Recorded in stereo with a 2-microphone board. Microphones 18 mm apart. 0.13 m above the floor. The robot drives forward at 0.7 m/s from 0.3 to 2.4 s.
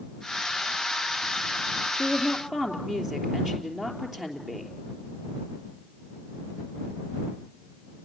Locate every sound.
1.9 s a woman speaking: 25° right (ahead or behind), 3 m